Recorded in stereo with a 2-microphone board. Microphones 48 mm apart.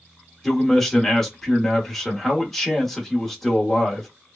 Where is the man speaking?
10° left (ahead or behind), 0.9 m.